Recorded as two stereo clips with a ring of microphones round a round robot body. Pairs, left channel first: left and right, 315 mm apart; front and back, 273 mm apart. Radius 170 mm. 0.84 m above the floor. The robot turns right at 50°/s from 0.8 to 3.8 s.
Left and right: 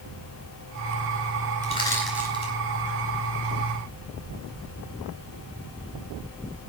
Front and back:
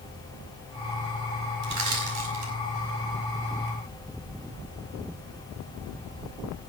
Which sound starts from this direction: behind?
Crushing, at 1.6 s.